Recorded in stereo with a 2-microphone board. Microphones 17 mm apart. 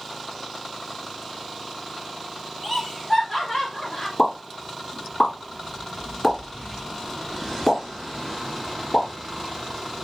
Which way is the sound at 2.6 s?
10° right (ahead or behind).